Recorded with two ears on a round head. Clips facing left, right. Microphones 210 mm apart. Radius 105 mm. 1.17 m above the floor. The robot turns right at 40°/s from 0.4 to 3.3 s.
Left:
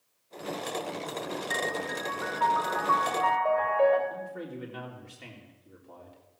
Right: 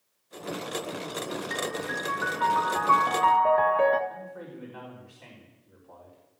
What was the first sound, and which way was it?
A piano, straight behind.